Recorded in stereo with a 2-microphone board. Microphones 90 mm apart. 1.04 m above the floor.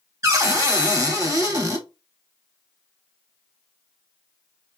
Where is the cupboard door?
35° right (ahead or behind), 0.8 m.